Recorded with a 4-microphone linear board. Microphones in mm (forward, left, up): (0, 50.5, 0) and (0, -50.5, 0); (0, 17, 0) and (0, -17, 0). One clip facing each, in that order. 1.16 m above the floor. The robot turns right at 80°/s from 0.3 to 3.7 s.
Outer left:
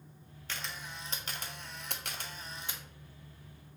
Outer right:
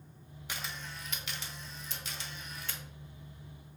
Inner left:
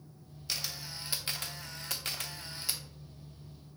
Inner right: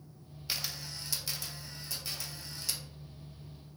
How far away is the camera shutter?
About 0.5 m.